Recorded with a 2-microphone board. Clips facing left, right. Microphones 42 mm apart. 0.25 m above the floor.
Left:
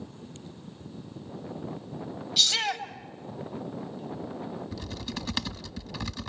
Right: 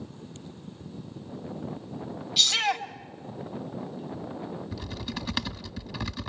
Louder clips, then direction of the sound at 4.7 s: Right 1 dB; 5° right (ahead or behind).